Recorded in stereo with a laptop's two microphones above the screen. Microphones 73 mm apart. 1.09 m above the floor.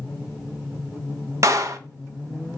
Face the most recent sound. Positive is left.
turn(degrees=-45)  # may be behind; listen again after turning